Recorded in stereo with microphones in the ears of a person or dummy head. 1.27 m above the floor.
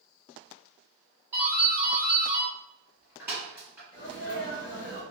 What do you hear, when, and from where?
1.3 s a doorbell: 10° right (ahead or behind), 1.6 m
3.9 s a sneeze: 50° left (ahead or behind), 1.1 m